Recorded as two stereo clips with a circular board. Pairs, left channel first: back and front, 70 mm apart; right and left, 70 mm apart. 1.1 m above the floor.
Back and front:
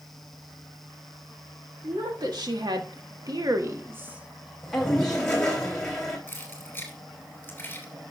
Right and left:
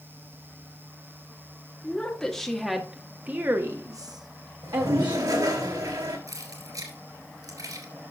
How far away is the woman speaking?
About 2 m.